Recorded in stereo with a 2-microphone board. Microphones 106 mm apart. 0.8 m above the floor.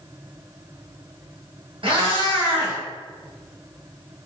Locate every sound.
1.8 s a cat meowing: 60° right (ahead or behind), 1.4 m